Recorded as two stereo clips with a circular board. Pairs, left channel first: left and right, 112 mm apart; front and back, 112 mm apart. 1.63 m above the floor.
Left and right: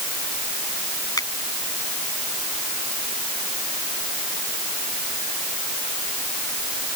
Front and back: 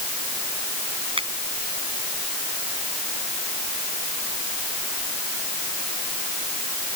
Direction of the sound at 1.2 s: 145° left.